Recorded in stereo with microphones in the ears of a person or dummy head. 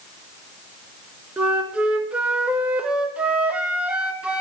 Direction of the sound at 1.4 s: 5° right (ahead or behind).